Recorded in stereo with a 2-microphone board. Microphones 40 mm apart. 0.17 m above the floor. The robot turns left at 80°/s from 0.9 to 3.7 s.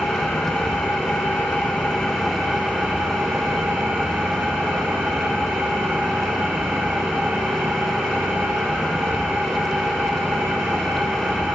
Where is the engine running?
110° left, 4 m; by 11.6 s 115° right, 4 m.